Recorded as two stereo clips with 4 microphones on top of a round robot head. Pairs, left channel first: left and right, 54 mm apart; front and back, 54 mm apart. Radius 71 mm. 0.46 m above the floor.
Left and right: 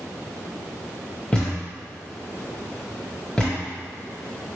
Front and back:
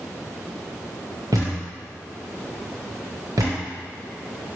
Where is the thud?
165° left, 1.3 m.